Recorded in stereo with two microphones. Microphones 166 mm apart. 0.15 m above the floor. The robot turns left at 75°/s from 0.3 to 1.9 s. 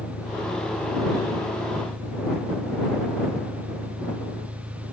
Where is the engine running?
75° left; by 4.9 s 45° right.